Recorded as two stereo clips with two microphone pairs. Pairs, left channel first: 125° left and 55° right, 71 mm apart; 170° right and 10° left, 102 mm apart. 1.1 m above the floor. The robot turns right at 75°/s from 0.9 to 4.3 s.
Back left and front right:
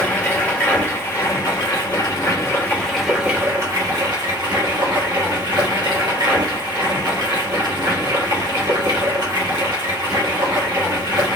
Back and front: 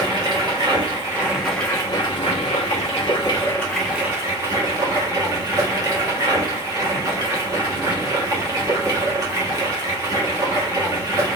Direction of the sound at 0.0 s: 60° left.